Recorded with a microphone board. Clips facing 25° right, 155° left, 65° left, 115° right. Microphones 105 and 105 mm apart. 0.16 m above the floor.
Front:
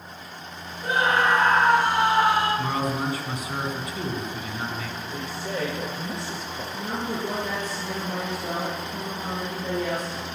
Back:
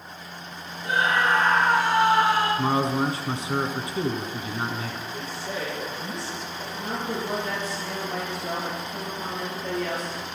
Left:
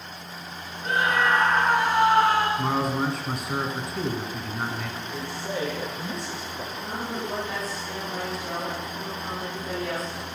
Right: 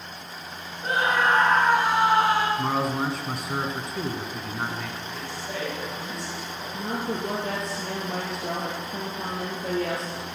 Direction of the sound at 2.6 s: 160° left.